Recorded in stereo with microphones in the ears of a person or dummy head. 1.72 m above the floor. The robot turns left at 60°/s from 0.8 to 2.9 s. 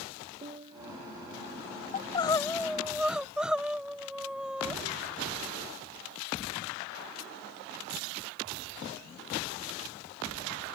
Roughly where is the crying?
Ahead left.